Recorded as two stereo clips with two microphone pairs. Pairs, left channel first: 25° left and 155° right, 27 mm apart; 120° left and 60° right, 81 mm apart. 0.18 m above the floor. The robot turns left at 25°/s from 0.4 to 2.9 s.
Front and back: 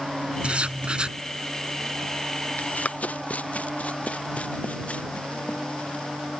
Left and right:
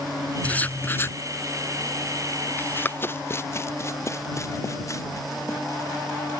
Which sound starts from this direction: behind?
Writing, at 0.4 s.